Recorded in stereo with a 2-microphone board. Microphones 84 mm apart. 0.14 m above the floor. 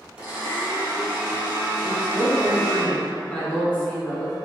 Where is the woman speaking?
15° left (ahead or behind), 1.0 m.